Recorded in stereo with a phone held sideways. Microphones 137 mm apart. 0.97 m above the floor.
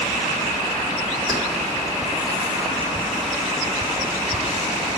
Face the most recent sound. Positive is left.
turn(degrees=-25)  # may be behind; listen again after turning